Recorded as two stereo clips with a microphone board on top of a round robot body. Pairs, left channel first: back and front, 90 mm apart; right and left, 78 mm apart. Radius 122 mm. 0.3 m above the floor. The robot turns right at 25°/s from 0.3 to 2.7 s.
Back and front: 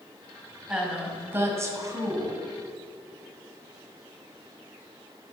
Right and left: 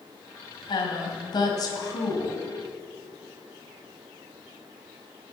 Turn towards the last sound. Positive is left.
turn(degrees=-30)